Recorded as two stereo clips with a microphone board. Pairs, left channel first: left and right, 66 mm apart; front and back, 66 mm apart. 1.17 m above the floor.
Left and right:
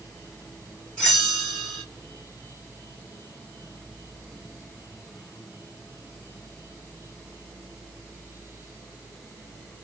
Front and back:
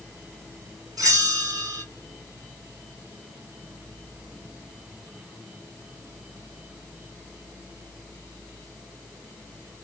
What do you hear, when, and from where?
1.0 s a bell: 170° left, 1.7 m